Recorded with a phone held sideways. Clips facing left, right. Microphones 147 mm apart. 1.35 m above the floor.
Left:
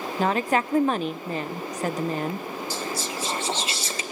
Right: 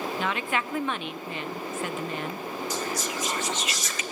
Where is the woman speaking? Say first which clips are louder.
Left 10 dB; 40° left (ahead or behind), 0.7 m.